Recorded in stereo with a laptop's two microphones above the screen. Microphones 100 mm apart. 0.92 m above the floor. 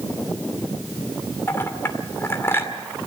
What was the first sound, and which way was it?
A clink, 25° left (ahead or behind).